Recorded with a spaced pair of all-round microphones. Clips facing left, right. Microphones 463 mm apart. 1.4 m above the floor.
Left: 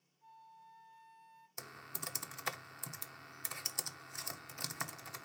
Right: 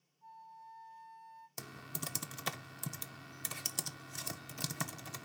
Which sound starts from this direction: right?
Typing on a keyboard, at 1.6 s.